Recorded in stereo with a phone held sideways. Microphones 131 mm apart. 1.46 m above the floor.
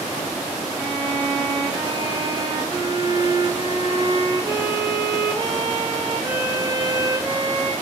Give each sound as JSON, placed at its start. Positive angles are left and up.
{"t": 0.7, "sound": "a violin", "side_deg": -30, "distance_m": 0.7}